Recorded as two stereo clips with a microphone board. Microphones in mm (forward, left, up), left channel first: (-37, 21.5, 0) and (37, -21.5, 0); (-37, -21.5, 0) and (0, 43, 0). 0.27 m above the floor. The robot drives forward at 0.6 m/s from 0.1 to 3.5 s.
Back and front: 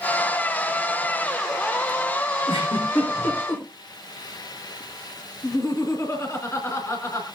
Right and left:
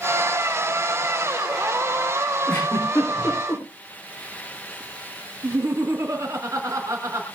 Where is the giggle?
165° left, 9 m.